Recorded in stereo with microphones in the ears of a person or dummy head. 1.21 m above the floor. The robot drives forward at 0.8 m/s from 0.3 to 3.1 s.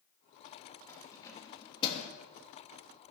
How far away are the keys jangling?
About 1.7 m.